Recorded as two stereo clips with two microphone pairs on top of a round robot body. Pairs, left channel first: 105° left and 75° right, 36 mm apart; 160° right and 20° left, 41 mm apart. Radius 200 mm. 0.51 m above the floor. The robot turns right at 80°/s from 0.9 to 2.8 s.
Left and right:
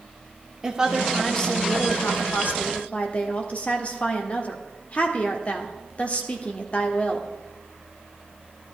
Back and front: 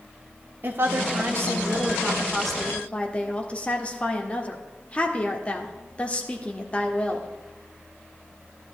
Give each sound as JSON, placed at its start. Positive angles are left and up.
{"t": 0.6, "sound": "a woman speaking", "azimuth_deg": -5, "distance_m": 1.8}